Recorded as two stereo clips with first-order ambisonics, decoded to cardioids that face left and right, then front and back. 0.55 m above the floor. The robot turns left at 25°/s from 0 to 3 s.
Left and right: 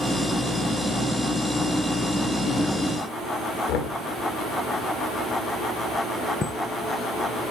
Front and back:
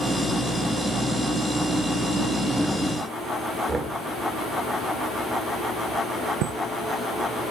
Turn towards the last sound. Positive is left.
turn(degrees=160)